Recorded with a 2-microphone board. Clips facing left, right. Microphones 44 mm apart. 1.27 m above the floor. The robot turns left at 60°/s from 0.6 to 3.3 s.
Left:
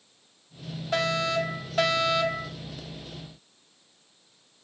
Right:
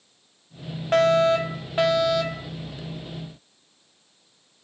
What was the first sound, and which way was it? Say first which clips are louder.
A fire alarm: right 8 dB; 100° right.